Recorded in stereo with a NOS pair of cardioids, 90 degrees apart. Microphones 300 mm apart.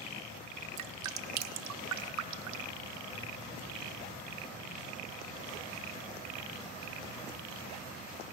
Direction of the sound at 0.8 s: 70° right.